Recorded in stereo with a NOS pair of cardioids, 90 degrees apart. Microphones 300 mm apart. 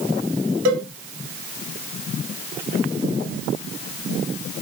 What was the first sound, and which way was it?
A cowbell, 65° right.